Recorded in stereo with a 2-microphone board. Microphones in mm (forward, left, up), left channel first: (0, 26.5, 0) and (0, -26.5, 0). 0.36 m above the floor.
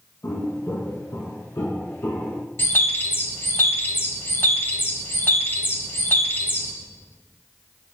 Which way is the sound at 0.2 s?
80° left.